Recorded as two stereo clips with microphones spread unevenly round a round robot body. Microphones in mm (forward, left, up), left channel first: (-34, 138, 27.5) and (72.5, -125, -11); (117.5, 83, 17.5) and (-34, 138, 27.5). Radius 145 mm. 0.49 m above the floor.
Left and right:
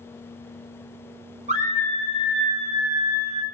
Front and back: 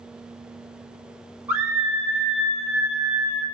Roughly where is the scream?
Behind right.